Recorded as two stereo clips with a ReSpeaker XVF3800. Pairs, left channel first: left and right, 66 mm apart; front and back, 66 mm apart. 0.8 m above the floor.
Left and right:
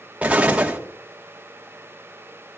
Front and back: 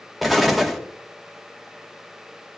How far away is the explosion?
About 1.0 m.